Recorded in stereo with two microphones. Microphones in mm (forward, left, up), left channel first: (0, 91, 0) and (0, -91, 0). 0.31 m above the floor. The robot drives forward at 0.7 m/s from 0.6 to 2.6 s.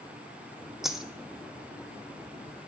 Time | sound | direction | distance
0.8 | a dropped coin | centre (ahead or behind) | 0.7 m